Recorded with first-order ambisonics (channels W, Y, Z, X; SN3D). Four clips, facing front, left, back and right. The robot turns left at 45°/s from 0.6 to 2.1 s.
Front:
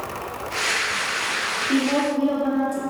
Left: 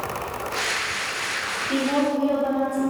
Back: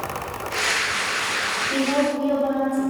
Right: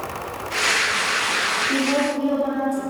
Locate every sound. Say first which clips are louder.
1.7 s a woman speaking: right 2 dB, front 1 dB; 10° right, 1.1 m; by 2.8 s 30° right, 1.1 m